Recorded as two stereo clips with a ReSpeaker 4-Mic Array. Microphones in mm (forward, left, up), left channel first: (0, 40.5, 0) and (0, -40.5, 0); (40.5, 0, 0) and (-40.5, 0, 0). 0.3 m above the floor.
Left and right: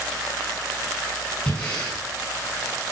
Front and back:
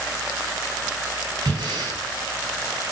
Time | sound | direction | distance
1.5 | breathing | 165° left | 3.5 m